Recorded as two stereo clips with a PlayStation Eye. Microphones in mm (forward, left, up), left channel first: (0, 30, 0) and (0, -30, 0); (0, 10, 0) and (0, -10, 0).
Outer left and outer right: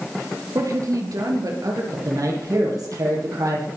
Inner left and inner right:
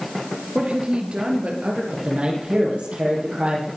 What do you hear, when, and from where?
0.6 s a woman speaking: 65° right (ahead or behind), 4 m; by 1.8 s 70° right (ahead or behind), 5.5 m
1.9 s a man speaking: 70° right (ahead or behind), 9 m